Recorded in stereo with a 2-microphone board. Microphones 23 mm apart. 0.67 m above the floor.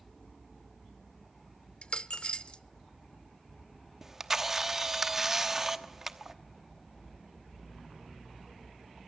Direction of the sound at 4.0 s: 20° right (ahead or behind).